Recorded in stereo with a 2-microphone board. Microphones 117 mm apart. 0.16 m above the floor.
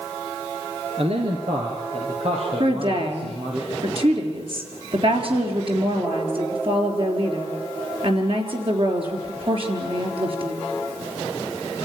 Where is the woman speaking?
50° right (ahead or behind), 3.5 m.